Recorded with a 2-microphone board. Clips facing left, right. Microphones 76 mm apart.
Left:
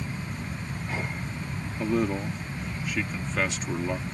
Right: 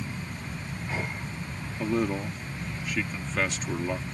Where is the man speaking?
Centre (ahead or behind).